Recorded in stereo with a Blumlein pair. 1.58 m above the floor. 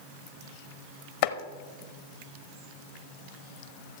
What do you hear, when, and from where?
1.2 s chopping: 50° left, 0.8 m